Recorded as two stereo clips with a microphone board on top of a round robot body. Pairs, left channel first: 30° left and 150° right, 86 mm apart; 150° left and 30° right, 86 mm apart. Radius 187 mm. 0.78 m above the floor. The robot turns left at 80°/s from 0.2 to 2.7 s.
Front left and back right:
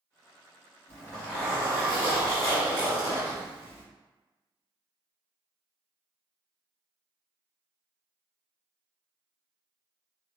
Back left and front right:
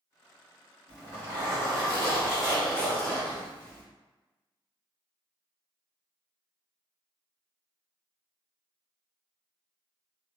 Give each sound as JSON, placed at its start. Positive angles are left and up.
{"t": 0.9, "sound": "a zipper", "azimuth_deg": -25, "distance_m": 1.1}